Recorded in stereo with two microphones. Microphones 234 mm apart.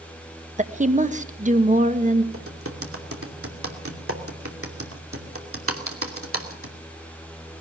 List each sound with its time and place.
0.6 s a woman speaking: 30° right (ahead or behind), 1.2 m
2.3 s typing on a keyboard: 65° right (ahead or behind), 2.5 m